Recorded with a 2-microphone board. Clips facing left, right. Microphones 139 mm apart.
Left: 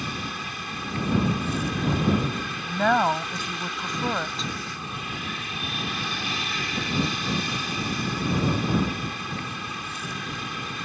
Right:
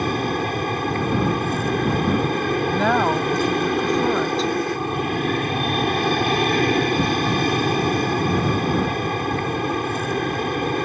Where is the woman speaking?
Centre (ahead or behind).